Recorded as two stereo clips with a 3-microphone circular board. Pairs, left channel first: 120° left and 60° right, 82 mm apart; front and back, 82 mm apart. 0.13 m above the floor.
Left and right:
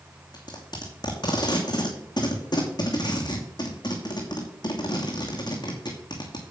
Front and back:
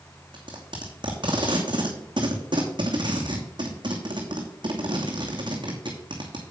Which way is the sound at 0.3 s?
155° left.